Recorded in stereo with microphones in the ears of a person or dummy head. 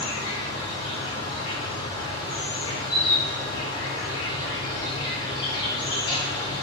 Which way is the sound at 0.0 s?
25° left (ahead or behind).